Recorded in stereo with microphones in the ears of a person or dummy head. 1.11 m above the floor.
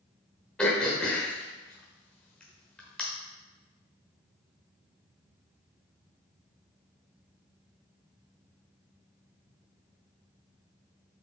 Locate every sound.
0.6 s throat clearing: 5° left (ahead or behind), 1.1 m